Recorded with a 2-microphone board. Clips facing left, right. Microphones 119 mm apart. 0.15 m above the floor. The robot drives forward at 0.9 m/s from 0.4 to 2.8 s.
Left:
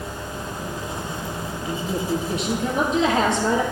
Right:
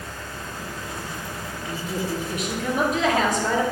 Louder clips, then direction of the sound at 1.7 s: Left 3 dB; 35° left (ahead or behind).